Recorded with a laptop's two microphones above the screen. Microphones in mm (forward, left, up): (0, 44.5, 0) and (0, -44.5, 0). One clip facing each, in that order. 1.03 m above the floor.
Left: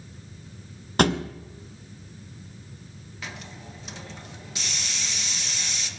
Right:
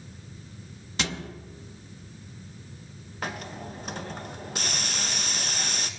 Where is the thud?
55° left (ahead or behind), 0.6 m.